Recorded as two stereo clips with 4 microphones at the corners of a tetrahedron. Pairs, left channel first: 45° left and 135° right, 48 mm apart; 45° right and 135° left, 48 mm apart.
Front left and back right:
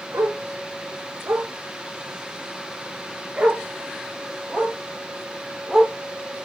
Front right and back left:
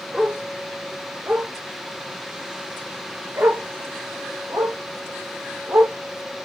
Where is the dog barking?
145° right, 1.8 m; by 6.5 s 135° left, 4 m.